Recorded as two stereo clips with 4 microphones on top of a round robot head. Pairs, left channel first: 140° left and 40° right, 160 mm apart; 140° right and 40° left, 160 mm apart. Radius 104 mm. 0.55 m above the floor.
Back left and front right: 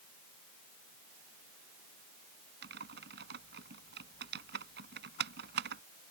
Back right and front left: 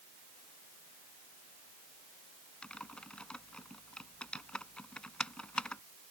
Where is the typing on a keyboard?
60° right.